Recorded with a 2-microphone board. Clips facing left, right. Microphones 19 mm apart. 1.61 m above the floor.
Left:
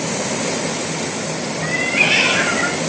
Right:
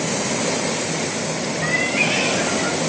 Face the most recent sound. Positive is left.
turn(degrees=55)  # may be behind; listen again after turning